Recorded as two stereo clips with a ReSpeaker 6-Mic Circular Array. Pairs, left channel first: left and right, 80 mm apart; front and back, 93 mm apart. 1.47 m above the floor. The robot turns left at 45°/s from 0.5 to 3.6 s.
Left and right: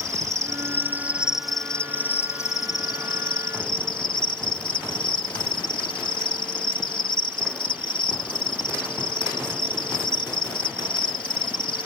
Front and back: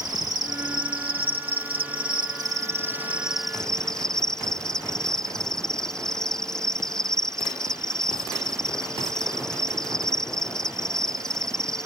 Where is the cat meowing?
I don't hear a cat meowing.